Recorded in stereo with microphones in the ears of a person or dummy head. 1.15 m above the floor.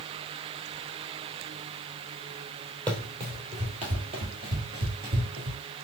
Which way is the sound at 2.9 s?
30° right (ahead or behind).